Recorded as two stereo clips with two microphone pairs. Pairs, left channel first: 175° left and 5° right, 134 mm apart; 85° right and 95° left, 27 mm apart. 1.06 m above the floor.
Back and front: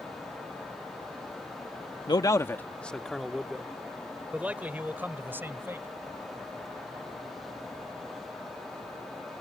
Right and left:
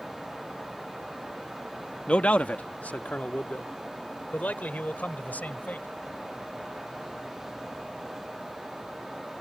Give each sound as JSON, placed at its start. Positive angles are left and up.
{"t": 2.1, "sound": "a man speaking", "azimuth_deg": -130}